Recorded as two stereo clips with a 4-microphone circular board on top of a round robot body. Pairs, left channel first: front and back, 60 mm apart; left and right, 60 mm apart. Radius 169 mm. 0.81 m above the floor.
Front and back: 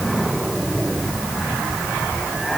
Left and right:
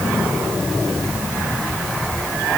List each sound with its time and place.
Only background noise.